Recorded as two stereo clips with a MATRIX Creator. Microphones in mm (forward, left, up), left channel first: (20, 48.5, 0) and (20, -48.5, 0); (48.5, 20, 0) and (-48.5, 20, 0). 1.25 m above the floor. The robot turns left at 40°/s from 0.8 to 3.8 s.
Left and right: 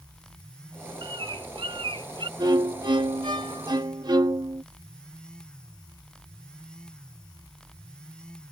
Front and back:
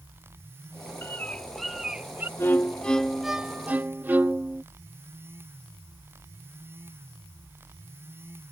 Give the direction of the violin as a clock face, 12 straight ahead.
2 o'clock.